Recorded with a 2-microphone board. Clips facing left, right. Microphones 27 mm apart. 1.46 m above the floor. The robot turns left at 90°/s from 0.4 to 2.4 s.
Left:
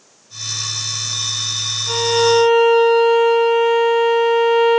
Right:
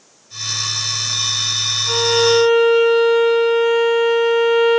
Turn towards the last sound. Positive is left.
turn(degrees=-70)